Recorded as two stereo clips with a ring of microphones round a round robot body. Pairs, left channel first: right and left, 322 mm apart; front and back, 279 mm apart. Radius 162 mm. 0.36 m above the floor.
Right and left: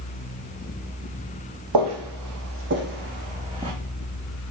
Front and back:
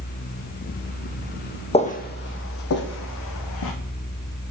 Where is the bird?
No bird in this recording.